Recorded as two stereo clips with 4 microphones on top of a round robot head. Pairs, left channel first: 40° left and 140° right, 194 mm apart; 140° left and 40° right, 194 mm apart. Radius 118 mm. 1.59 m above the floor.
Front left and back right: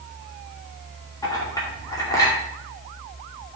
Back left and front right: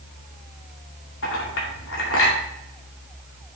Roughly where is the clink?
Behind left.